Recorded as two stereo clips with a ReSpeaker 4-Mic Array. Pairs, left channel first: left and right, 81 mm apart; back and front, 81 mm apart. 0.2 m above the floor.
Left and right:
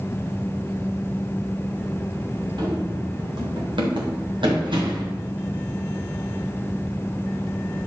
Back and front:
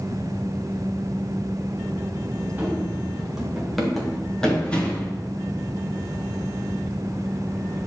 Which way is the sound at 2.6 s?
65° right.